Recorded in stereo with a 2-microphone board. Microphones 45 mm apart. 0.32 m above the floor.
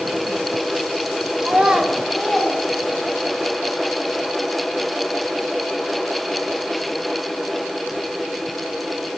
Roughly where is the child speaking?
Right.